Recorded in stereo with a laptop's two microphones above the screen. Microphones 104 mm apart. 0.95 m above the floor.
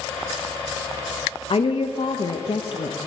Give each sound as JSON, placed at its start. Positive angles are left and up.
{"t": 1.5, "sound": "a woman speaking", "side_deg": 60, "distance_m": 0.6}